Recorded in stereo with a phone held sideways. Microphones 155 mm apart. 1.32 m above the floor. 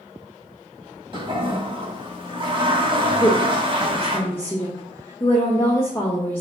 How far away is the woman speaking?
About 1.8 m.